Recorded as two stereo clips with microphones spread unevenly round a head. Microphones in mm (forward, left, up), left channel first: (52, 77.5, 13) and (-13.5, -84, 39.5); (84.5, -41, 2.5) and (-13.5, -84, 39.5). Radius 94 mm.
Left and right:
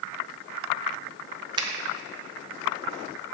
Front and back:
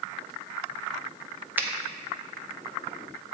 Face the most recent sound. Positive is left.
turn(degrees=-145)